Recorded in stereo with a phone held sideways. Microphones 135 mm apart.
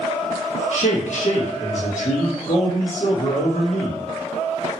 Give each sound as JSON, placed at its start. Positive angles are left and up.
{"t": 0.7, "sound": "a man speaking", "side_deg": 65, "distance_m": 1.2}